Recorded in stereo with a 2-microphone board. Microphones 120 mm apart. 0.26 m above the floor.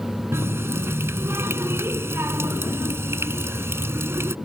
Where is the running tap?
20° right (ahead or behind).